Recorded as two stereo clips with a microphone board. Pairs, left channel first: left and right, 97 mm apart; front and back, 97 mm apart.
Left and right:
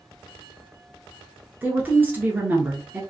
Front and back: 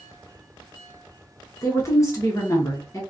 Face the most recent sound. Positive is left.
turn(degrees=-30)